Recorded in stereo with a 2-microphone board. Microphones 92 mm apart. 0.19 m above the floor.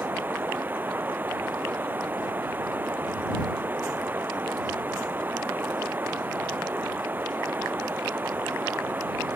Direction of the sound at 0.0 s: 20° right (ahead or behind).